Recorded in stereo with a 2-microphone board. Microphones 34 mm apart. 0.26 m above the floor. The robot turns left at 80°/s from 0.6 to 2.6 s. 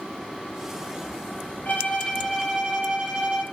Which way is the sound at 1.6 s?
55° left.